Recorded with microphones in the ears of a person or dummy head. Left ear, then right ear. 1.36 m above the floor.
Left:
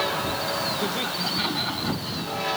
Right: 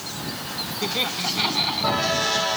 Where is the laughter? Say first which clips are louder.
Right 2 dB; 30° right (ahead or behind); by 2.5 s 25° right (ahead or behind).